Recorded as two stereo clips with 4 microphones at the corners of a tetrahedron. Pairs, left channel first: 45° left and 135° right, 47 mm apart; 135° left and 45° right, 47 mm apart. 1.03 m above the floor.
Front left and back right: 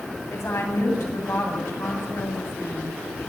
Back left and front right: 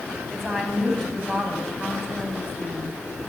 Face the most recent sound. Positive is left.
turn(degrees=45)